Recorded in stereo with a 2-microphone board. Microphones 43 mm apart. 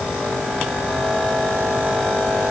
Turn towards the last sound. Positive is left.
No sound to turn to.